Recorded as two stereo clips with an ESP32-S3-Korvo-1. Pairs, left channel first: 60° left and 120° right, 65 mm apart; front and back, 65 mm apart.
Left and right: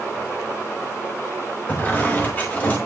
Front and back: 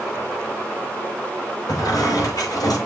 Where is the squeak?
Straight ahead, 5 m.